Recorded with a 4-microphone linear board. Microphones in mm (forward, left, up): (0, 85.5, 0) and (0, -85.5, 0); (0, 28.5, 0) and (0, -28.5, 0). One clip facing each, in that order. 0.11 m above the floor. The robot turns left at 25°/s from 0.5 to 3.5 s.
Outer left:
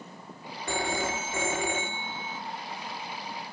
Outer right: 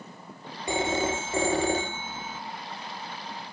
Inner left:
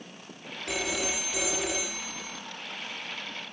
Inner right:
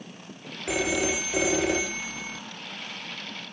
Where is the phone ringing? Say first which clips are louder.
Outer right 4 dB, inner right 5 dB; 25° right, 1.1 m; by 2.4 s 65° right, 1.1 m.